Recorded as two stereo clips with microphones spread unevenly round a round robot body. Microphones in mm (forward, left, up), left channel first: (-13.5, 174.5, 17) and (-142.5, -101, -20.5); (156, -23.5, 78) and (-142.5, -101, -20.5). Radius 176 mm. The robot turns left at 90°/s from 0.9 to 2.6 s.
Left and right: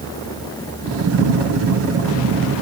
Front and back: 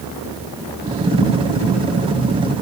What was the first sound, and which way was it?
Only background noise.